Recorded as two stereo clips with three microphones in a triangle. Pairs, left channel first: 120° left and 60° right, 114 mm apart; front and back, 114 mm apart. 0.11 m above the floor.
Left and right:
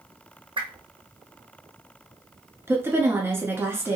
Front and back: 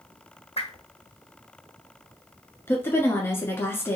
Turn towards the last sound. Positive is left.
turn(degrees=-30)